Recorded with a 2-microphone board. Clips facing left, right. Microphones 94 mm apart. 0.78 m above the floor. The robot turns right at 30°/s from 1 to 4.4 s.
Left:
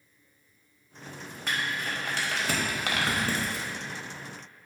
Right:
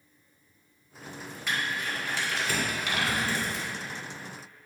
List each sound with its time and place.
1.5 s crumpling: 45° left (ahead or behind), 1.2 m; by 3.8 s 60° left (ahead or behind), 1.2 m